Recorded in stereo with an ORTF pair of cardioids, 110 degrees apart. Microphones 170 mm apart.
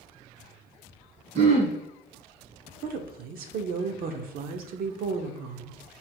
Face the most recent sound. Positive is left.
turn(degrees=-65)